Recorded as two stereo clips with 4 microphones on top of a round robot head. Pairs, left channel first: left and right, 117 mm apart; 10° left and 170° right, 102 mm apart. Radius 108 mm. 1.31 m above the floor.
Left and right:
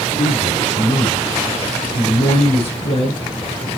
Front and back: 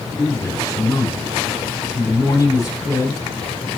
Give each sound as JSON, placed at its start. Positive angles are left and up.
{"t": 0.2, "sound": "a man speaking", "azimuth_deg": 70, "distance_m": 4.5}